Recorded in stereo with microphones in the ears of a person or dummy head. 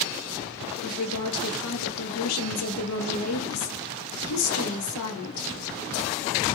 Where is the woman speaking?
90° left, 0.8 m.